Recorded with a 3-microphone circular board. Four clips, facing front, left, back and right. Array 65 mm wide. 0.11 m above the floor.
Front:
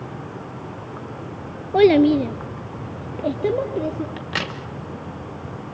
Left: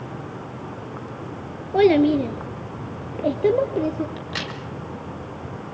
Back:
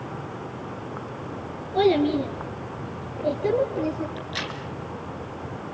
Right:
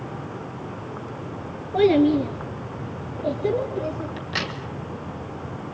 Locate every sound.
1.7 s a child speaking: 25° left, 1.5 m; by 4.1 s 70° left, 2.5 m
4.2 s a crack: 5° right, 1.7 m